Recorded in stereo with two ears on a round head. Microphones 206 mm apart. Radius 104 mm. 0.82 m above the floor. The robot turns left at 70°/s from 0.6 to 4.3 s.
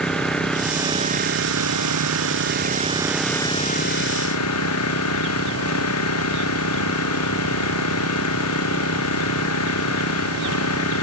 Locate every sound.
0.0 s an engine running: 5° left; by 11.0 s 105° left